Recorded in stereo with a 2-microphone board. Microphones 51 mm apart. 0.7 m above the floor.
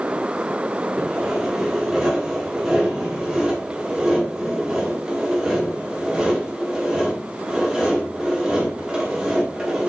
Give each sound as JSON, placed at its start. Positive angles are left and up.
{"t": 1.0, "sound": "sawing", "side_deg": -10, "distance_m": 1.3}